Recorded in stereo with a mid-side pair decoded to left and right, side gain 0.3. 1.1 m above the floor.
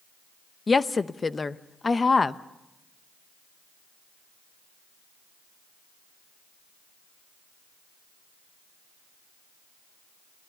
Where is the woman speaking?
40° left, 1.0 m.